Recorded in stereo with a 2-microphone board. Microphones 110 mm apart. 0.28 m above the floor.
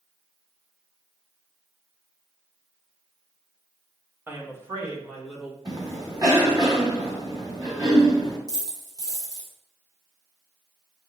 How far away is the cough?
About 2.5 m.